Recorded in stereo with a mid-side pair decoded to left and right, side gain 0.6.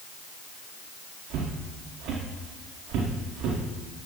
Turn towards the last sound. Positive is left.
turn(degrees=-65)